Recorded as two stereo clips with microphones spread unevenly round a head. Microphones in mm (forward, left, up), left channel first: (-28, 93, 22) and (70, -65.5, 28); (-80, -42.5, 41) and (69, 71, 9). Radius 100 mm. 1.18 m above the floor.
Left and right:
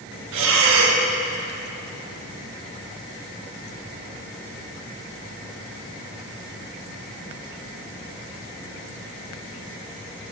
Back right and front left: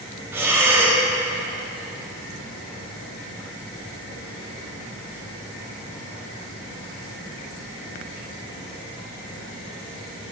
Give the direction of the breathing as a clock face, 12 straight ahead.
1 o'clock.